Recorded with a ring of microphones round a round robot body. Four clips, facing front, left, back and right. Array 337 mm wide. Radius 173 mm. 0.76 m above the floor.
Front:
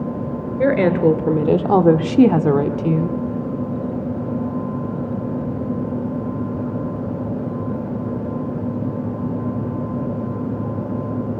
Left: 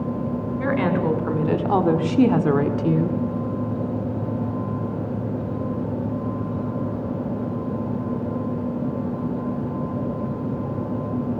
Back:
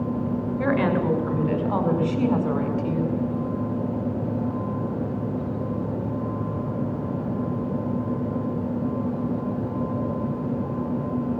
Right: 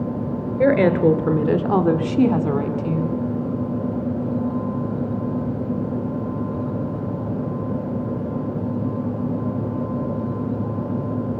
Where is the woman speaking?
50° right, 3 m; by 3.2 s 40° left, 2.5 m.